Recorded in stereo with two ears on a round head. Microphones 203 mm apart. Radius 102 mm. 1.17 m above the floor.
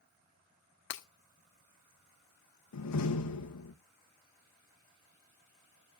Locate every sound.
0.9 s breaking glass: 55° left (ahead or behind), 1.2 m
2.7 s a door slam: 85° left, 1.1 m